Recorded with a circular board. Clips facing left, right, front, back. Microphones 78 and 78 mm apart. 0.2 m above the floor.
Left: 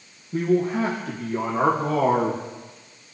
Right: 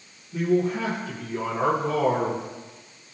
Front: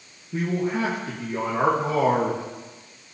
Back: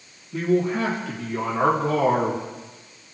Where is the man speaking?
55° left, 5.5 m.